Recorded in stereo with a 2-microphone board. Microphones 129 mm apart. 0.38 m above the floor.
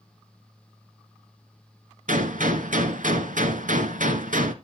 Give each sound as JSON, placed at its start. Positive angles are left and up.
{"t": 2.1, "sound": "a gunshot", "side_deg": -80, "distance_m": 1.1}